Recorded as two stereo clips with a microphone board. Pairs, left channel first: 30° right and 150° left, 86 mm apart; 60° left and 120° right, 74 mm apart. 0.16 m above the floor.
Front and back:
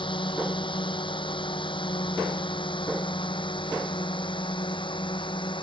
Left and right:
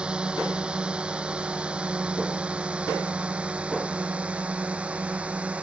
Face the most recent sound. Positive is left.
turn(degrees=-50)